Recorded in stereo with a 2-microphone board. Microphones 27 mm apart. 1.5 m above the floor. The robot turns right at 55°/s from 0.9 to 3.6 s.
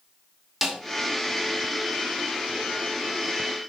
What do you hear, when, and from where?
0.6 s a snare drum: 5° right (ahead or behind), 1.0 m